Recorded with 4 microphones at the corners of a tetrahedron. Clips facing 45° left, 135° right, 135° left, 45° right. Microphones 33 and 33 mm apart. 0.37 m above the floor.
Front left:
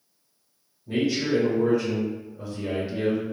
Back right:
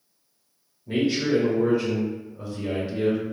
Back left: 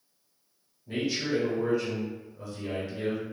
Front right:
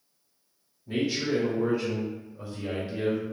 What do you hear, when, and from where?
0.9 s a man speaking: 135° right, 1.1 m; by 3.2 s 15° right, 1.0 m